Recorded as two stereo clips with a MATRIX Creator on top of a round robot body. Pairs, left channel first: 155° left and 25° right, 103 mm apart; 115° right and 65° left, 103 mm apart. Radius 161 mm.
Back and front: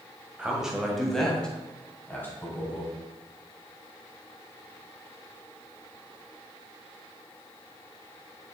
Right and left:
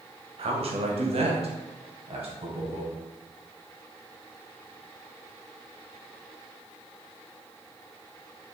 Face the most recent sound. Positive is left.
turn(degrees=90)